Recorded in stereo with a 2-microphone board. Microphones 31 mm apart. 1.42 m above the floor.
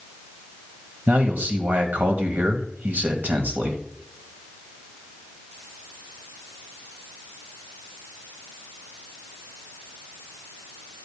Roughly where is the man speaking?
Right.